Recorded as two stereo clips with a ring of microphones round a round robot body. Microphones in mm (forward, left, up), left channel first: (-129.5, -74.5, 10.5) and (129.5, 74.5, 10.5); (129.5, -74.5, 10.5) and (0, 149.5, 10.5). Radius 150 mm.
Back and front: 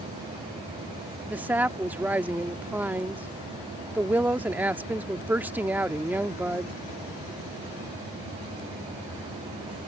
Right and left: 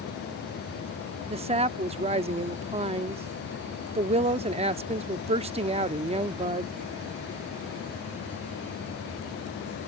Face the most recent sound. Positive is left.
turn(degrees=105)